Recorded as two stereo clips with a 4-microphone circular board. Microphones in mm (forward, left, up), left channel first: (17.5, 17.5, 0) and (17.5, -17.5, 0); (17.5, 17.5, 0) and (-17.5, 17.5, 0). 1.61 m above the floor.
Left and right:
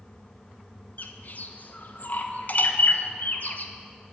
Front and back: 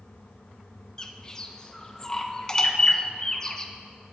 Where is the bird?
70° left, 0.9 m.